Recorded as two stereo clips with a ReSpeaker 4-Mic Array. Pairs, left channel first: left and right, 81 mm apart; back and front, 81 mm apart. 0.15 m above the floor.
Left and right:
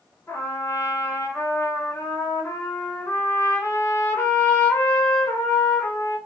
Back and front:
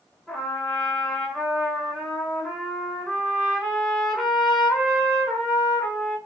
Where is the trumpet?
90° left, 1.0 m.